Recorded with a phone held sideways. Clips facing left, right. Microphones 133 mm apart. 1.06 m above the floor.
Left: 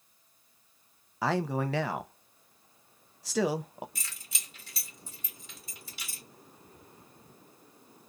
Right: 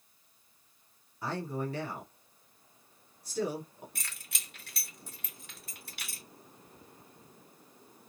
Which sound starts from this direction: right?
Keys jangling, at 4.0 s.